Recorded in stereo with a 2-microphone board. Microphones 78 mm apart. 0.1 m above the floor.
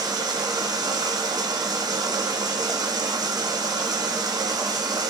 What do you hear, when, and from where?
0.0 s running water: 60° right (ahead or behind), 0.8 m